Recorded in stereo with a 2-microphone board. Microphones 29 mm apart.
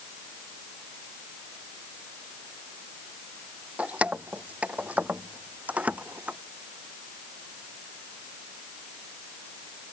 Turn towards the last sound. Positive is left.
turn(degrees=-55)  # may be behind; listen again after turning